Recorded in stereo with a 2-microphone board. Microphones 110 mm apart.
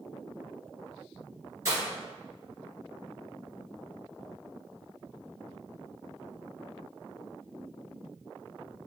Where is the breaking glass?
30° right (ahead or behind), 1.8 m.